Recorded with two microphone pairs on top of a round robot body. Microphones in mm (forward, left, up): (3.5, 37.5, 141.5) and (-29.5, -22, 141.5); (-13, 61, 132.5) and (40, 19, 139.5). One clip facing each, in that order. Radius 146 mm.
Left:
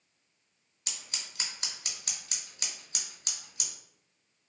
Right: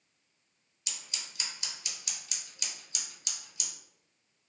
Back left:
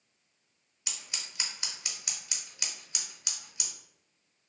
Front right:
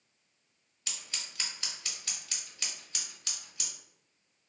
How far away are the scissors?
About 0.9 m.